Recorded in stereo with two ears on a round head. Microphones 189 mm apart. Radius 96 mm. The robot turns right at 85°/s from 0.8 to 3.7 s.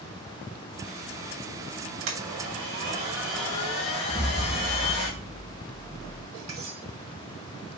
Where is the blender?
110° right, 2.5 m; by 5.1 s 30° left, 2.5 m.